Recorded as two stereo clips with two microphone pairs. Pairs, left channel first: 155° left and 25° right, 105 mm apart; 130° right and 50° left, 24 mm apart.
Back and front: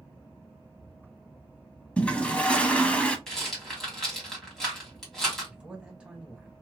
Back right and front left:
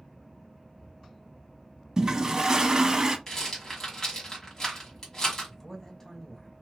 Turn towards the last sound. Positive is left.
turn(degrees=-95)